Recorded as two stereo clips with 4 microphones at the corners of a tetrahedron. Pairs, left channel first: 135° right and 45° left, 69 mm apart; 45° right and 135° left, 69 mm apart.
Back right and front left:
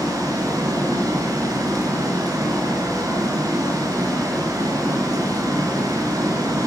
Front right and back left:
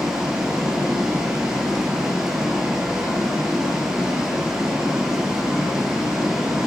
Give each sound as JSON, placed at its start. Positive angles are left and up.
{"t": 0.0, "sound": "running water", "azimuth_deg": 55, "distance_m": 2.5}